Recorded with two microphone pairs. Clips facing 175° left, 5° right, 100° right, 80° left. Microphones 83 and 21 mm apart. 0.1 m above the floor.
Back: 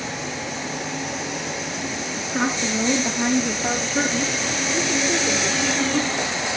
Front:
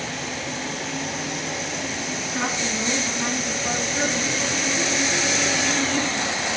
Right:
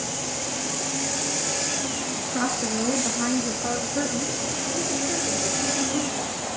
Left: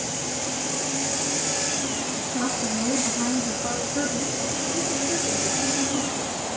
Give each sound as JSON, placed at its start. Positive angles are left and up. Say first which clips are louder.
{"t": 2.2, "sound": "a woman speaking", "louder": "back 5 dB, right 2 dB", "azimuth_deg": -140, "distance_m": 2.0}